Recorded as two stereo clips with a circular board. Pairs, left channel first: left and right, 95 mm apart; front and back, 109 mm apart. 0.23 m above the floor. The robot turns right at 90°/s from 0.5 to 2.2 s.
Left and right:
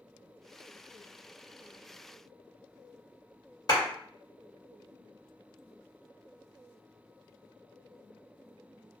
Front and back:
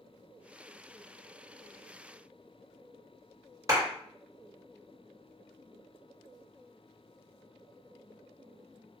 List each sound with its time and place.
3.7 s a clap: 125° left, 1.8 m